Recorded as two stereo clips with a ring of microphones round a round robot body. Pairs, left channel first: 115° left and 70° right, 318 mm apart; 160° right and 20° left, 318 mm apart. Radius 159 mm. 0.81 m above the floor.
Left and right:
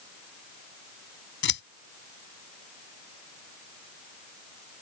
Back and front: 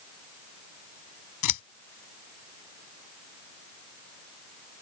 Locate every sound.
1.4 s scissors: 170° left